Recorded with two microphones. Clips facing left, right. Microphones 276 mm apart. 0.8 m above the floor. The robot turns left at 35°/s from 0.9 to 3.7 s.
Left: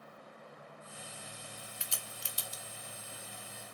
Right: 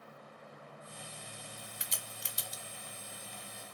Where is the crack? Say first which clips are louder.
Even; 20° right (ahead or behind), 0.6 m.